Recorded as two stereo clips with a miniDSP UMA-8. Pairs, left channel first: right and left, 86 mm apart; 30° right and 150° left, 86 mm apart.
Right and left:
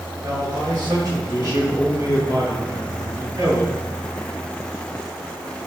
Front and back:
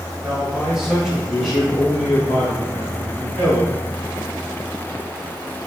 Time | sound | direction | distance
0.2 | a man speaking | 70° left | 1.7 m